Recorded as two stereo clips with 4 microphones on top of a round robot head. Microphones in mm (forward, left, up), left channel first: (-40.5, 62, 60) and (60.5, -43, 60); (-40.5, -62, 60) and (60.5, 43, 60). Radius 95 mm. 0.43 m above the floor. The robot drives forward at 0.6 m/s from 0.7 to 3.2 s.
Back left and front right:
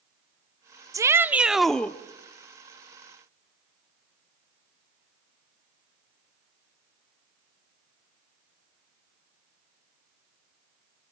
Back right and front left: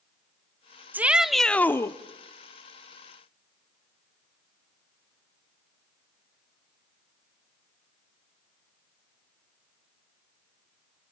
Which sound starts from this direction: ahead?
A shout, at 0.9 s.